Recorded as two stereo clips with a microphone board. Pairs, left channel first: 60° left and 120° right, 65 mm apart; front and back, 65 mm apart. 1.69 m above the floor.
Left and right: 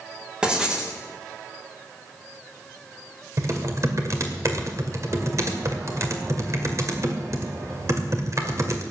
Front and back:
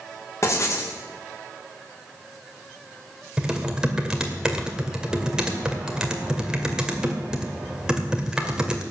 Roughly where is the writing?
Ahead right.